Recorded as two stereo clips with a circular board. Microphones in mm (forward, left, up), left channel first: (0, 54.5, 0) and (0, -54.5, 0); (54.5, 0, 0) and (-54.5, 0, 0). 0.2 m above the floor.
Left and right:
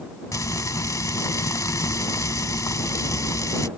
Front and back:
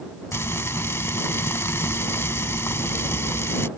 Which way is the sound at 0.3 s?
55° left.